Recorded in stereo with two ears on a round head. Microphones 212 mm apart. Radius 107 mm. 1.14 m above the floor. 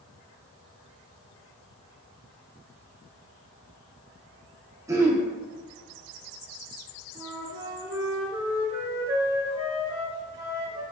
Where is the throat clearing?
15° right (ahead or behind), 0.7 m.